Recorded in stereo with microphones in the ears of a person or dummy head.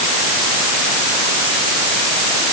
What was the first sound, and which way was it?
Only background noise.